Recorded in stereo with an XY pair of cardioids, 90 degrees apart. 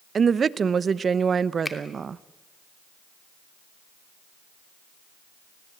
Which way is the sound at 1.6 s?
20° left.